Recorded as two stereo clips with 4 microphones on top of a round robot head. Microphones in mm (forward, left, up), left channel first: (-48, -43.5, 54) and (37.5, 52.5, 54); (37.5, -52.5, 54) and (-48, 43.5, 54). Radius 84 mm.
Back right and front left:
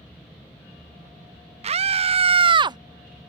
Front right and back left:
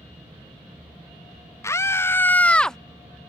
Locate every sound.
1.6 s a scream: 20° left; by 2.8 s 35° left